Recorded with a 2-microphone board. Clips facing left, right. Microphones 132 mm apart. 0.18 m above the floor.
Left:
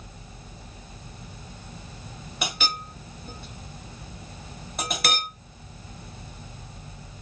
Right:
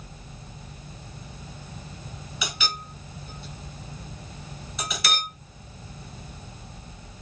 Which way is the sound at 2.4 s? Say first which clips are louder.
Left 2 dB; 55° left (ahead or behind).